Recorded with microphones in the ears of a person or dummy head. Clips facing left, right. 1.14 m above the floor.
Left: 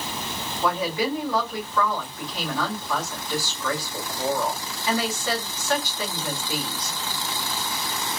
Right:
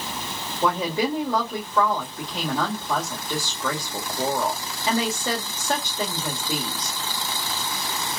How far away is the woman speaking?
About 1.6 m.